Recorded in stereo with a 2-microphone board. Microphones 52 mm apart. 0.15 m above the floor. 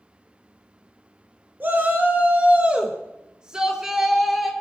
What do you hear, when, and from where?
1.6 s a shout: 40° right (ahead or behind), 2.5 m; by 4.5 s centre (ahead or behind), 3 m